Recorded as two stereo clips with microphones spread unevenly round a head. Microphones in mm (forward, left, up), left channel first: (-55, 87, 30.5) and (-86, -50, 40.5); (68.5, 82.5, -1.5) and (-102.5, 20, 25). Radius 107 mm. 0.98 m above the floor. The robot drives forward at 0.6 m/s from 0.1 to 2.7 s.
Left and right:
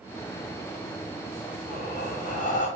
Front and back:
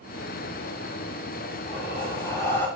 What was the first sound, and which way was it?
Breathing, 70° left.